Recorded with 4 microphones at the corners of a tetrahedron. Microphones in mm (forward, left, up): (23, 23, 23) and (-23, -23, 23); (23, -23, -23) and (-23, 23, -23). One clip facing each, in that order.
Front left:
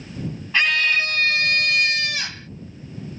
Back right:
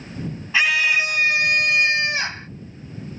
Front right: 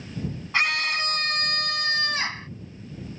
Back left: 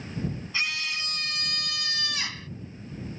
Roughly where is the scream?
Ahead right.